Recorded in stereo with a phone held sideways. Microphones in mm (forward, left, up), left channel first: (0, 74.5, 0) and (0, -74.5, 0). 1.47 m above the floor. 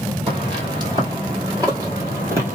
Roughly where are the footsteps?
Right.